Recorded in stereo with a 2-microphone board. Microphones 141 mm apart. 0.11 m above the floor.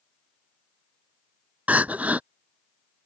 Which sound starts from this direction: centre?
Crying, at 1.7 s.